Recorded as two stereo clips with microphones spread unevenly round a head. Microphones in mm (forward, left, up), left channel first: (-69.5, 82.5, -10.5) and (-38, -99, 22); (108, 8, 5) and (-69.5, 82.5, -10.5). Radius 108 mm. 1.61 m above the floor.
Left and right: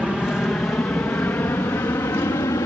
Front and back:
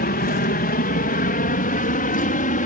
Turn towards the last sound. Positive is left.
turn(degrees=25)